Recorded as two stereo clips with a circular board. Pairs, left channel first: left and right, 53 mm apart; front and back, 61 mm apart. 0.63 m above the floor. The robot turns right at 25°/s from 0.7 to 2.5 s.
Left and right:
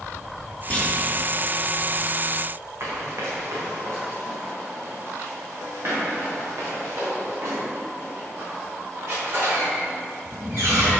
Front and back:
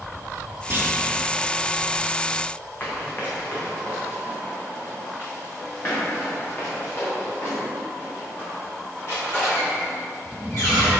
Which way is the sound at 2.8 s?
55° right.